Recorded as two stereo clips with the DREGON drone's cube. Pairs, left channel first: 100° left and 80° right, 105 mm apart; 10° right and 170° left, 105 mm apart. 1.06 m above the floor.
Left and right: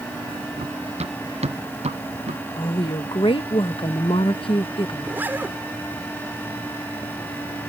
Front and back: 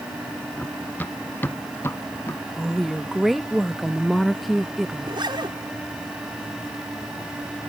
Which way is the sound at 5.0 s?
150° right.